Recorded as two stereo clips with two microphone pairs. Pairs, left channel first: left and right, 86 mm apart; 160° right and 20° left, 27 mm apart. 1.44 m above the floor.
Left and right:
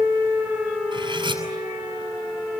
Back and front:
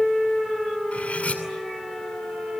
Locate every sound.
0.9 s cutlery clinking: 120° right, 7.5 m